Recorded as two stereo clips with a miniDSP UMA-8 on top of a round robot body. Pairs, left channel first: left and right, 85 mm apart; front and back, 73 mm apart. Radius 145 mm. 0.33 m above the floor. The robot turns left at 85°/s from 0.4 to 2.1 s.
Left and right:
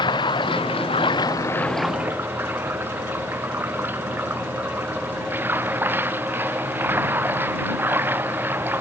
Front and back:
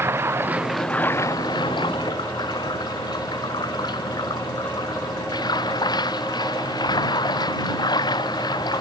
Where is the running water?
120° left; by 8.8 s 25° right.